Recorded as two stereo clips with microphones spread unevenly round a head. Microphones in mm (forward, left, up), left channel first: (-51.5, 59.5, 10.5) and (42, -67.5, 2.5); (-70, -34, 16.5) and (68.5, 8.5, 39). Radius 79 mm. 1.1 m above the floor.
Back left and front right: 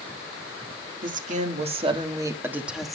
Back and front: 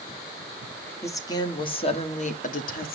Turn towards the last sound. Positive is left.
turn(degrees=-145)